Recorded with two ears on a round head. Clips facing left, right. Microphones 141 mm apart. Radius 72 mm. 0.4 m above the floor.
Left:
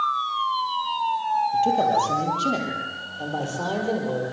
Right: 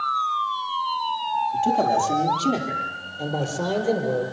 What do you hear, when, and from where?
1.5 s a man speaking: centre (ahead or behind), 8 m; by 4.2 s 10° right (ahead or behind), 9.5 m